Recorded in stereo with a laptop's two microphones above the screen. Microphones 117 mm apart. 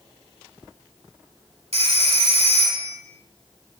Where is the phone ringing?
70° right (ahead or behind), 2 m.